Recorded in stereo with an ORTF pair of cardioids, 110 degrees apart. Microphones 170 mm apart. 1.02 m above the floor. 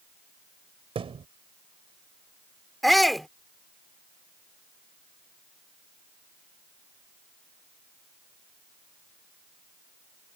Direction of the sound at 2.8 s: Straight ahead.